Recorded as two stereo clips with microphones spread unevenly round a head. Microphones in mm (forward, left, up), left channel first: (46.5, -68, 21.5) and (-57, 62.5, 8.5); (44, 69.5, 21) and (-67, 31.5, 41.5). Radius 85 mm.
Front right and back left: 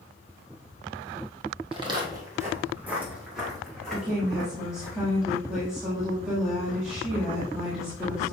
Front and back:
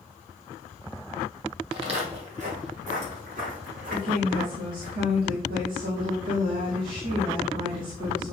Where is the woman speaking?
145° right, 1.9 m.